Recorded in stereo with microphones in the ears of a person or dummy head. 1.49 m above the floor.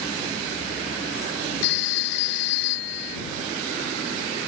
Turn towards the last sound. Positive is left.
turn(degrees=65)  # may be behind; listen again after turning